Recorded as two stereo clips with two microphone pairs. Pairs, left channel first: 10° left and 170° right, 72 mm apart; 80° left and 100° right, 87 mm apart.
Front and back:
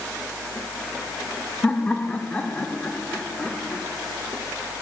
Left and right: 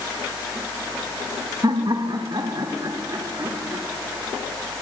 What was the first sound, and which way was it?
Laughter, 65° right.